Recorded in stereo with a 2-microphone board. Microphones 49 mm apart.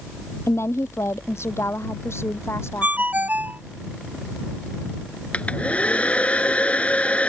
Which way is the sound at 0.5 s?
65° left (ahead or behind).